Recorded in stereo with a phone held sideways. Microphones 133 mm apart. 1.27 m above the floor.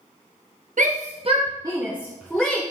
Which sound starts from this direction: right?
A shout, at 0.8 s.